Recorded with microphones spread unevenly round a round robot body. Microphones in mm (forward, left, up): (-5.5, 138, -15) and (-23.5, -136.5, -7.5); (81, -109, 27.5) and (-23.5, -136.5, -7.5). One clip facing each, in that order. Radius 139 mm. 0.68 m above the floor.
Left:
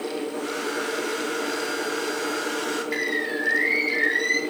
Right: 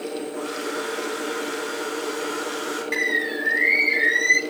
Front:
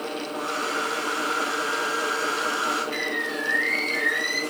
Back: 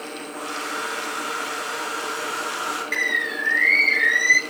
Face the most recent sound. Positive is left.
turn(degrees=-165)